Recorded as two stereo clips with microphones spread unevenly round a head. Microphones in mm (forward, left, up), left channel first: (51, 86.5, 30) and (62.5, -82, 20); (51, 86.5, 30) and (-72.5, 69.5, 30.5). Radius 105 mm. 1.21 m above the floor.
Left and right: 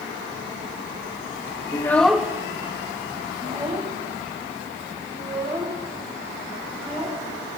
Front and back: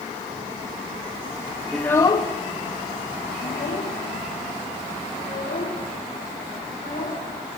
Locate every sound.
1.7 s a child speaking: 90° left, 0.5 m; by 7.2 s 30° right, 4.5 m